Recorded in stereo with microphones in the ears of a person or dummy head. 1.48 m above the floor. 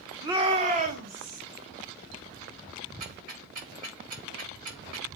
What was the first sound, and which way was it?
A shout, 20° right (ahead or behind).